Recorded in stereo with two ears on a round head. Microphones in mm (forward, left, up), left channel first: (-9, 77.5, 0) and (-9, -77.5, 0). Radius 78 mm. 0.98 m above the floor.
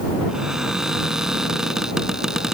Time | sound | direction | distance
0.3 | a cupboard door | 5° right (ahead or behind) | ?